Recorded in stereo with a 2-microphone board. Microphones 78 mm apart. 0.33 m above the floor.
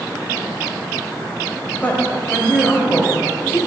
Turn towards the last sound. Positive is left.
turn(degrees=25)  # may be behind; listen again after turning